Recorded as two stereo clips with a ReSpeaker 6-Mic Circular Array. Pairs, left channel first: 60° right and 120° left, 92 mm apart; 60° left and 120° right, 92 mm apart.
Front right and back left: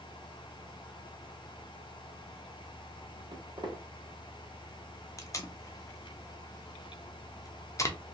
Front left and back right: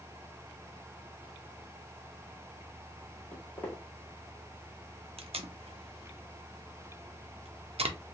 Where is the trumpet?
I don't hear a trumpet.